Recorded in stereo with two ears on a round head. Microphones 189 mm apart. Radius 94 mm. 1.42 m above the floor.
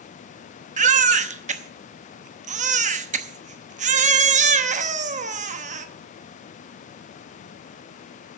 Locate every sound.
0.8 s a baby crying: 35° right (ahead or behind), 0.9 m